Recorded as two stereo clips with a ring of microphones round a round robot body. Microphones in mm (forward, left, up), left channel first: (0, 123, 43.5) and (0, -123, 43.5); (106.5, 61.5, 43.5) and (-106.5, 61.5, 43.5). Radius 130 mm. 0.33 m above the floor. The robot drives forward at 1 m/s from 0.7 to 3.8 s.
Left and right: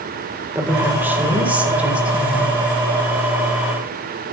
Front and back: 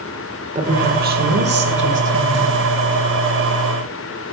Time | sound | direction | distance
0.6 | a woman speaking | 165° right | 1.7 m